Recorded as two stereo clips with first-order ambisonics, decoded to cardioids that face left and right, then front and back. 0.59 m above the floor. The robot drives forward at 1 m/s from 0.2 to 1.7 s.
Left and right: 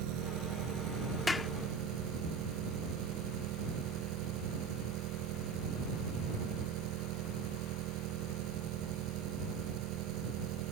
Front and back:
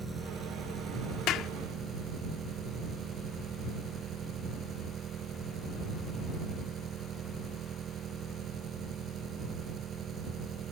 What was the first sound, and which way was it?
An engine running, 110° right.